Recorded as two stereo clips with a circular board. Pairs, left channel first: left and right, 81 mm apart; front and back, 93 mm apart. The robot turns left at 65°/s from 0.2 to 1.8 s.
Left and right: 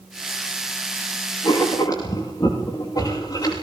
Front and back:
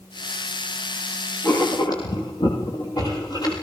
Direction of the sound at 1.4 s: 70° left.